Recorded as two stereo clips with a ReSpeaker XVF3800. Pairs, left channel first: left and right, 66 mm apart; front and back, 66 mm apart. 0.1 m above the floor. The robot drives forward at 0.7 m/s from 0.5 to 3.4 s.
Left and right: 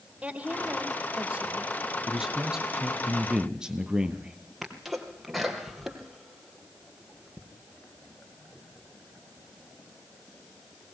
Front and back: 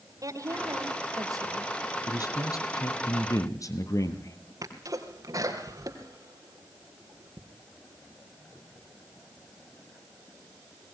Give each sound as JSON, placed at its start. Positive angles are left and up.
{"t": 0.2, "sound": "a woman speaking", "azimuth_deg": -160, "distance_m": 3.0}
{"t": 2.1, "sound": "a man speaking", "azimuth_deg": -10, "distance_m": 3.0}
{"t": 4.6, "sound": "a sneeze", "azimuth_deg": -175, "distance_m": 3.0}